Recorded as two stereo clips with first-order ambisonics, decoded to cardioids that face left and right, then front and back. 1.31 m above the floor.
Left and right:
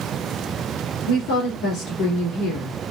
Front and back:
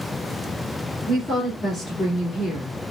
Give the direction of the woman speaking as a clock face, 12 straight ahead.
9 o'clock.